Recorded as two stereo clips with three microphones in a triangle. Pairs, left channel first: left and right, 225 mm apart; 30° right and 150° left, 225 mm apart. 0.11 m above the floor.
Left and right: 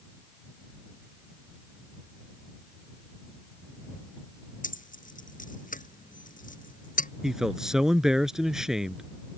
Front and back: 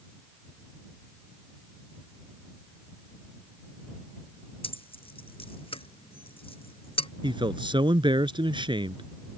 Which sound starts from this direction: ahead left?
Keys jangling, at 4.6 s.